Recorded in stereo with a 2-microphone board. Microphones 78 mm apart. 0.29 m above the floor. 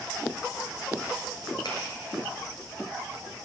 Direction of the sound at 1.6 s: 70° left (ahead or behind).